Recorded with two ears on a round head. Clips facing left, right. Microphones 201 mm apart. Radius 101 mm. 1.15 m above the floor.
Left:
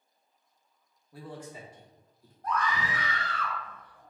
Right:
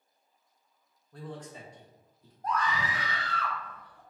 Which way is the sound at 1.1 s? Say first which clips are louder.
Even; 10° left (ahead or behind).